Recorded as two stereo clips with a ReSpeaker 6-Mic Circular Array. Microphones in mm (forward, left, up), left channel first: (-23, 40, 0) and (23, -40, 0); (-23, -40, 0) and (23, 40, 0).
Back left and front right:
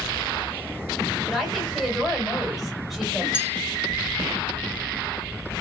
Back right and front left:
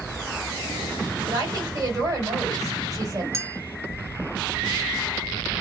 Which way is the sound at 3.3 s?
15° left.